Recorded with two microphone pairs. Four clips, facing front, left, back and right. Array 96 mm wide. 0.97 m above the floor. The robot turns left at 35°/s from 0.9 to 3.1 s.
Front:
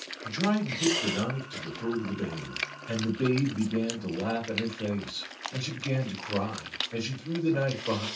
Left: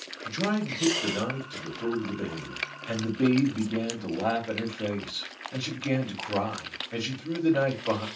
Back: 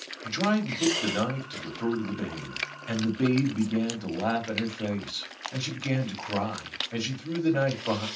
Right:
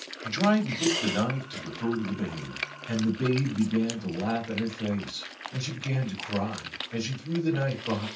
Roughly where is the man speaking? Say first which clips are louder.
Right 4 dB, back 2 dB; behind right.